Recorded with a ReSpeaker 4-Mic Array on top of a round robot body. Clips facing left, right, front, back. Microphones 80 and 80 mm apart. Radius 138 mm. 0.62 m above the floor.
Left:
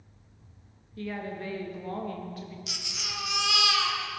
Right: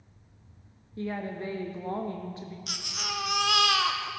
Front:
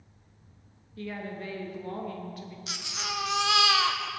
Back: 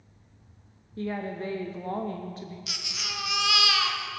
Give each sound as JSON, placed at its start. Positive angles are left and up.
{"t": 1.0, "sound": "a woman speaking", "azimuth_deg": -140, "distance_m": 0.8}
{"t": 2.7, "sound": "a baby crying", "azimuth_deg": -55, "distance_m": 0.7}